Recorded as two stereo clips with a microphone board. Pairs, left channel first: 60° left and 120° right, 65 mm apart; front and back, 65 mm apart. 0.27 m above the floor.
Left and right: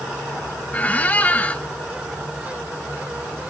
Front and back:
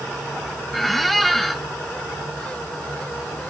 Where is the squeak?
85° left, 0.8 m.